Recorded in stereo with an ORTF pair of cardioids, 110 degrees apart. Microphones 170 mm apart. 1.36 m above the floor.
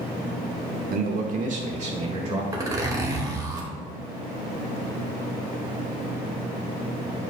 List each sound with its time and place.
0.9 s a man speaking: 60° right, 1.3 m; by 2.4 s 40° right, 2.5 m
2.5 s a zipper: 20° right, 1.8 m